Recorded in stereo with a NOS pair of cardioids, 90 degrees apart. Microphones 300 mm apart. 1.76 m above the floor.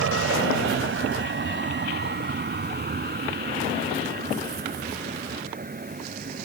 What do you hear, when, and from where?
0.0 s a vehicle: 50° right; by 6.5 s 30° right